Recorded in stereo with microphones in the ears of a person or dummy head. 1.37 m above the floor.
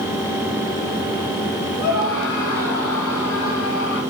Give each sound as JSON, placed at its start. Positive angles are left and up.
{"t": 1.8, "sound": "a scream", "side_deg": 85, "distance_m": 8.5}